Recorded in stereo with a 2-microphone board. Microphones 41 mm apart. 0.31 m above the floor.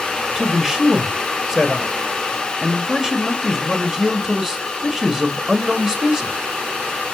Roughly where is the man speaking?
Centre.